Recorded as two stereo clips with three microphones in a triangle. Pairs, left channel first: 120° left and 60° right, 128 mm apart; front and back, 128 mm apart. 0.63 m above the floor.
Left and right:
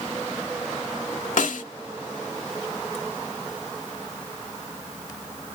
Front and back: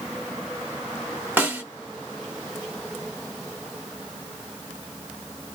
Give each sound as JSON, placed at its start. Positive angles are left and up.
{"t": 1.4, "sound": "a snare drum", "azimuth_deg": 100, "distance_m": 0.9}